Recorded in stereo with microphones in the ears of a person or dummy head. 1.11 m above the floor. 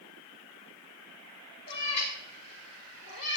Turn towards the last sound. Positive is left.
turn(degrees=65)  # may be behind; listen again after turning